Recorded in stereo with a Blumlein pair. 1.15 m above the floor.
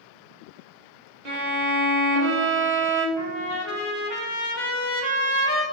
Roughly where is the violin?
Ahead right.